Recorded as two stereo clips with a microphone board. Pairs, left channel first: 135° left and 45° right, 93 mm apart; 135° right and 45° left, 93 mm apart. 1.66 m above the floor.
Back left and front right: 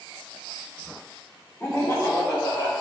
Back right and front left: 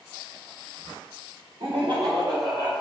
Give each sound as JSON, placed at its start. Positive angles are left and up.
{"t": 1.6, "sound": "laughter", "azimuth_deg": 70, "distance_m": 0.8}